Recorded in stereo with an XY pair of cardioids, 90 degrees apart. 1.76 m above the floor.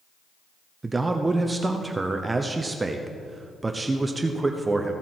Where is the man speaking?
25° right, 0.8 m.